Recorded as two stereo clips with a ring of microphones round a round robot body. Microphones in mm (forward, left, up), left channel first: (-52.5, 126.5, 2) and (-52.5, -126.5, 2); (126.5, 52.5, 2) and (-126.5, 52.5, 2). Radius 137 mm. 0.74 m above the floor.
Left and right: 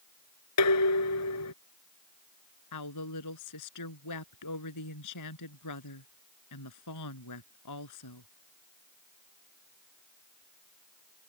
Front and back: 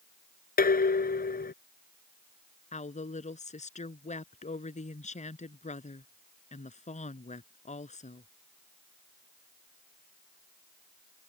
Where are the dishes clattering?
55° left.